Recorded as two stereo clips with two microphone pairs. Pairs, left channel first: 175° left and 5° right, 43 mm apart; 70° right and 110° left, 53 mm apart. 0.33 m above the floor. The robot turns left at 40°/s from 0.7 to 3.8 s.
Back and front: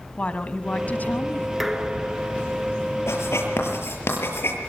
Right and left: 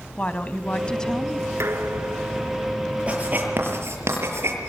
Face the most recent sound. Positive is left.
turn(degrees=150)